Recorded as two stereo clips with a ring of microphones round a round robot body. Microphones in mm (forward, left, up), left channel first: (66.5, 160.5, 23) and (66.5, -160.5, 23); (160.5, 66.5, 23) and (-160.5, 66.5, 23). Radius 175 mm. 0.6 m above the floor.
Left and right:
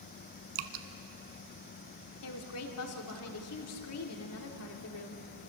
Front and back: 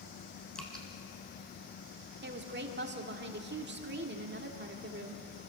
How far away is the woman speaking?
About 1.9 m.